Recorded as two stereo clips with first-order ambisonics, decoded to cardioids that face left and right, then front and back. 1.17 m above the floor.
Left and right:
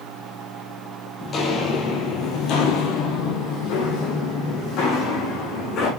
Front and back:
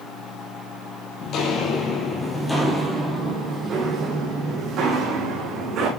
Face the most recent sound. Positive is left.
turn(degrees=135)